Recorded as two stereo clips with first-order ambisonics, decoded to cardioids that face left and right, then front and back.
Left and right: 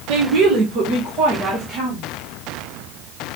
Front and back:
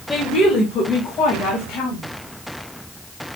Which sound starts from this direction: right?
A woman speaking, at 0.1 s.